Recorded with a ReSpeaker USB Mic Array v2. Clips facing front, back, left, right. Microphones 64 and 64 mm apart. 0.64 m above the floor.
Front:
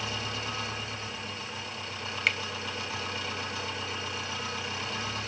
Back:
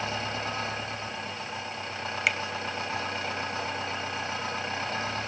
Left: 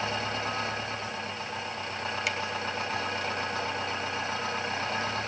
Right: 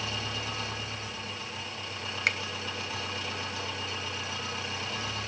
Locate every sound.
0.0 s an engine running: 130° left, 2.5 m
2.3 s a finger snap: 100° right, 0.7 m